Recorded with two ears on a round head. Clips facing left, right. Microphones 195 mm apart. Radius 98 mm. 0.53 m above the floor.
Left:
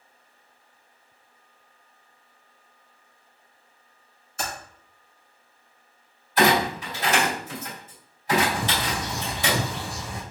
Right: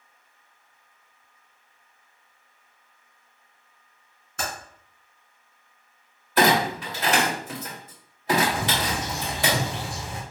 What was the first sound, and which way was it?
Typing on a keyboard, 50° right (ahead or behind).